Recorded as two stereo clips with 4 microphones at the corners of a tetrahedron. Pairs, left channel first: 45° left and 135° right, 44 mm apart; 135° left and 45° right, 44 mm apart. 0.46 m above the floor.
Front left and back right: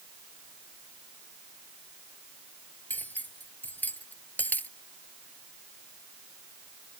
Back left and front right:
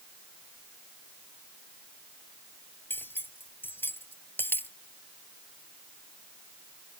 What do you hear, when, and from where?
2.9 s cutlery clinking: 95° left